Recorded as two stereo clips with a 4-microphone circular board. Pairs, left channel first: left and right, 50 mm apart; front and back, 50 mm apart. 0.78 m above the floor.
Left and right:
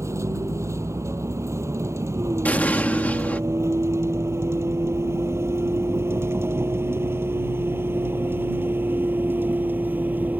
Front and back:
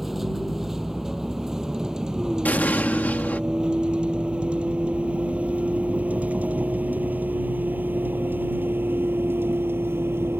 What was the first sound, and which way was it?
A vehicle, 95° right.